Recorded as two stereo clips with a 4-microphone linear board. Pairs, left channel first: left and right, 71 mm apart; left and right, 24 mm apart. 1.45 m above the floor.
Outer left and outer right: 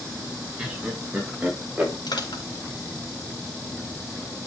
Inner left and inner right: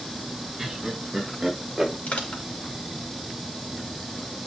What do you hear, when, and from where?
0.6 s laughter: 15° right (ahead or behind), 4.5 m; by 1.9 s 20° right (ahead or behind), 5 m
2.1 s crushing: 80° left, 4 m